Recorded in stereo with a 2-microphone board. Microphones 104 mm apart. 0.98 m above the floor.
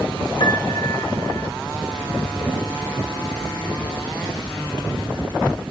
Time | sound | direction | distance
0.4 | a piano | 50° left (ahead or behind) | 1.2 m